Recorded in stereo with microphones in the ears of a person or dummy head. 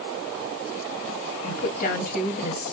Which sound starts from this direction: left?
A woman speaking, at 1.4 s.